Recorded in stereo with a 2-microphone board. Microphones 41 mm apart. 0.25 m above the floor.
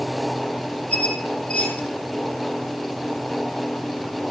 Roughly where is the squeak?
Left.